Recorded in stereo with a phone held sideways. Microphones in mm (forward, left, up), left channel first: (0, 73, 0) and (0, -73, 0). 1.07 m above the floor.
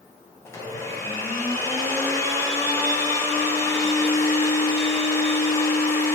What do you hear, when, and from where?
0.5 s a blender: 20° left (ahead or behind), 0.7 m